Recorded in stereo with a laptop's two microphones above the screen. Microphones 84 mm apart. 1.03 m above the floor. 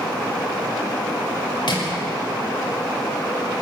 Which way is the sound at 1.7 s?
65° left (ahead or behind).